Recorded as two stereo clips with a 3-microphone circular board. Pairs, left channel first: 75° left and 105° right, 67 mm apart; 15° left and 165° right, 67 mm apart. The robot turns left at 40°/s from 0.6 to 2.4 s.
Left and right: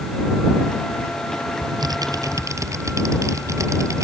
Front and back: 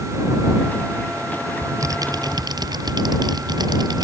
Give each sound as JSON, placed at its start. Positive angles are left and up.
{"t": 1.6, "sound": "typing on a keyboard", "azimuth_deg": -115}